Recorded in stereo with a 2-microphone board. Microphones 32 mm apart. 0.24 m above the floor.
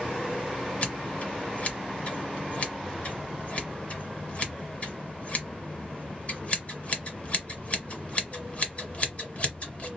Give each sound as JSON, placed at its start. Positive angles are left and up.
{"t": 0.8, "sound": "scissors", "side_deg": 40, "distance_m": 1.4}